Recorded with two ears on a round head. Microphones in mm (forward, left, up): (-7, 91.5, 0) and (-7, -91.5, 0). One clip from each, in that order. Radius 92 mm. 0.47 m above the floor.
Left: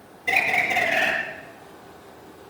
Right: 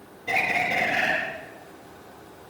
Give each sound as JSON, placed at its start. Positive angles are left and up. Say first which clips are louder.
{"t": 0.3, "sound": "a bird", "louder": "left 3 dB", "side_deg": 50, "distance_m": 9.0}